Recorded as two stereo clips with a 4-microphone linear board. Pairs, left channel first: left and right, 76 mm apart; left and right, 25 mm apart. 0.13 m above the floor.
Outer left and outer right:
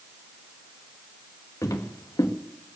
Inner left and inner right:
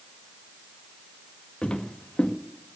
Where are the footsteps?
40° left (ahead or behind), 1.9 m.